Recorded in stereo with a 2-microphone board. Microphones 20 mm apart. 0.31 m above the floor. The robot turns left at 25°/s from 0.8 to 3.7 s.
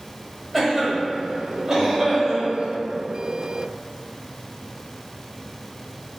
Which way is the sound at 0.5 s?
Centre (ahead or behind).